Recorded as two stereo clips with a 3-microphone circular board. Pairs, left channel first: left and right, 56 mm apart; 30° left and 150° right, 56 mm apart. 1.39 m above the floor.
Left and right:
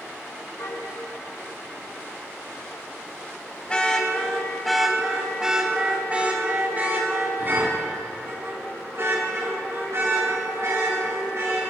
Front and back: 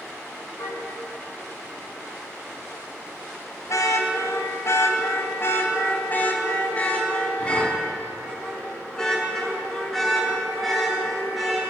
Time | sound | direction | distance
0.6 | a car horn | 60° left | 5 m